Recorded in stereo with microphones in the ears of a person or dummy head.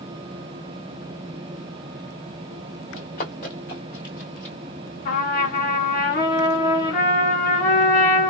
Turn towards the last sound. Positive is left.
turn(degrees=45)  # may be behind; listen again after turning